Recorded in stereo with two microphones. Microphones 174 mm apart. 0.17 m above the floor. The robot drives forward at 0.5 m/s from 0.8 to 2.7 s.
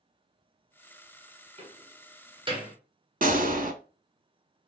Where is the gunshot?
50° right (ahead or behind), 0.6 m.